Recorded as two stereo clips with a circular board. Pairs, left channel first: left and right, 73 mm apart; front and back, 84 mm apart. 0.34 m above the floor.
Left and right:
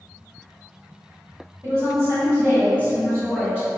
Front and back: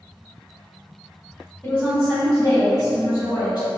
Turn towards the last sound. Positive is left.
turn(degrees=-5)